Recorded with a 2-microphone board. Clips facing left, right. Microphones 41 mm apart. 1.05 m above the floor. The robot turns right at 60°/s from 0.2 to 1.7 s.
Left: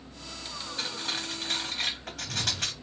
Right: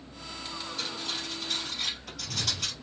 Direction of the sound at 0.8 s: 35° left (ahead or behind).